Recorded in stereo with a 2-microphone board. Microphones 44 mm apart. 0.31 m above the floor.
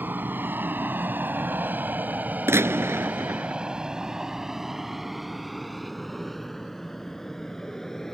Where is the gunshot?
80° right.